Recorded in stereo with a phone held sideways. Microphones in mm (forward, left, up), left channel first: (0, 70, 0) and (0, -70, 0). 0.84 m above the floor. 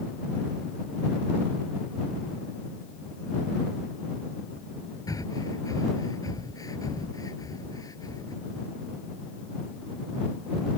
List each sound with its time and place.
5.1 s breathing: 25° left (ahead or behind)